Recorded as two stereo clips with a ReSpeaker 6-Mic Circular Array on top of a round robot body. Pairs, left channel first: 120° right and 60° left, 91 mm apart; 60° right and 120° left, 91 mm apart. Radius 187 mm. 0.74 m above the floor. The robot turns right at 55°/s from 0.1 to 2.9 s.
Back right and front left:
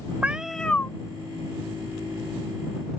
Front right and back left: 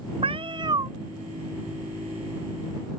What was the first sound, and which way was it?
A cat meowing, 135° left.